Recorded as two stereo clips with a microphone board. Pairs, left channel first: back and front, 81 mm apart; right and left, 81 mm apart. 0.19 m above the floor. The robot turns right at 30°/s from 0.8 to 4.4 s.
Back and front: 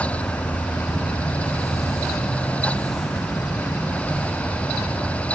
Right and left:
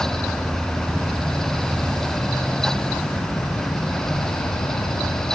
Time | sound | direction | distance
0.0 | an insect | 145° left | 6 m